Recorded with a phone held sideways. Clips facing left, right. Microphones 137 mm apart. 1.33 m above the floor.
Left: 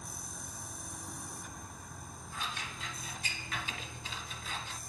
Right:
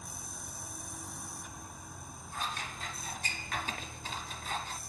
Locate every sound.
0.0 s a machine running: 5° right (ahead or behind), 1.3 m
2.3 s scissors: 45° right (ahead or behind), 1.6 m